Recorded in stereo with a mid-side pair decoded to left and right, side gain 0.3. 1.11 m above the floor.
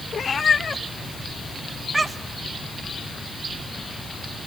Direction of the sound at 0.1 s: 65° left.